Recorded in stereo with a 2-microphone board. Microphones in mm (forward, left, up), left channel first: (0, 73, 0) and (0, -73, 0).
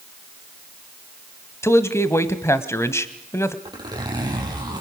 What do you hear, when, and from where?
1.6 s a man speaking: 20° left (ahead or behind), 1.2 m
3.6 s a zipper: 30° right (ahead or behind), 6 m